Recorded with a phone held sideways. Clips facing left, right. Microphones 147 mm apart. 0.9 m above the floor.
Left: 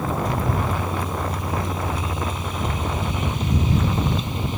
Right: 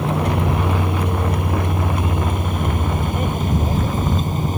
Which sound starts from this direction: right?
A vehicle, at 0.0 s.